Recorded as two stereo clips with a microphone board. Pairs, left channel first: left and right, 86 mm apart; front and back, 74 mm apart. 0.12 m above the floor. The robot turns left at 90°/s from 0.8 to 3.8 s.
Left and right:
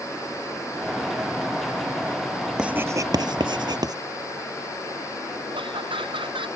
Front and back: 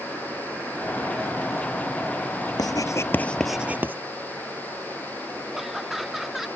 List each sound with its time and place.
2.6 s writing: 10° right; by 4.0 s 120° right
5.5 s laughter: 95° right